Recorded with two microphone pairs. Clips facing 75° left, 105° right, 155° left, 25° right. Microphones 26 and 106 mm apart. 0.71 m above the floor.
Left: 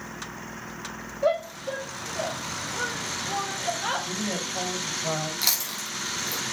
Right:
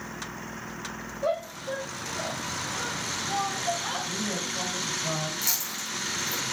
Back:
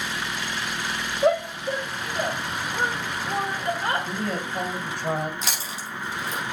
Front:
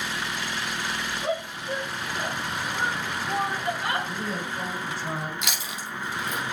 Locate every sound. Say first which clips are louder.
1.2 s a shout: left 4 dB, back 11 dB; 135° left, 4.5 m; by 4.1 s 100° left, 3 m
4.1 s a woman speaking: left 1 dB, back 3 dB; 130° left, 3 m
5.4 s chewing: left 3 dB, back 1 dB; 100° left, 3.5 m